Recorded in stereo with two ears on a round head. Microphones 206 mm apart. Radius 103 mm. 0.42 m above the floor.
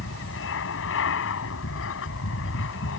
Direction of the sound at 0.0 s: 60° left (ahead or behind).